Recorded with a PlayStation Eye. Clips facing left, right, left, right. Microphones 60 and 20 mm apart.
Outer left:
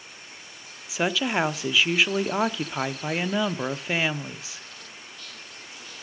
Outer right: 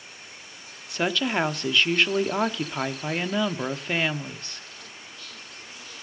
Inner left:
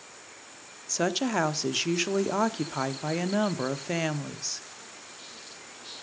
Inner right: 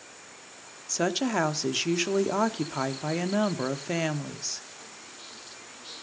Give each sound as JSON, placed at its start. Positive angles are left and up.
{"t": 0.9, "sound": "a woman speaking", "side_deg": 5, "distance_m": 0.7}